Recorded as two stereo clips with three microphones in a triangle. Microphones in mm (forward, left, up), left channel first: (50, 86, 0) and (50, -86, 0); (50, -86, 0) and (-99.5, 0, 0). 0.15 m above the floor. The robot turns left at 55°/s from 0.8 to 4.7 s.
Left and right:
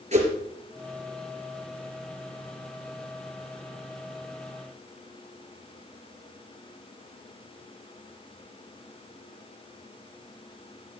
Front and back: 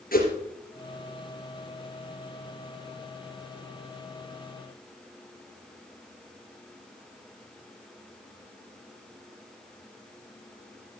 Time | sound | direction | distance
0.1 | a whoosh | 45° right | 3 m